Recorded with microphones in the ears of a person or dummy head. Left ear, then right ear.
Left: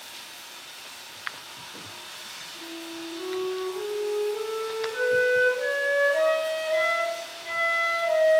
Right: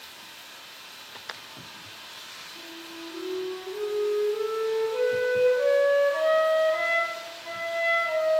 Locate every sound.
0.0 s running water: 30° left (ahead or behind), 1.8 m
2.5 s a flute: 70° left (ahead or behind), 1.9 m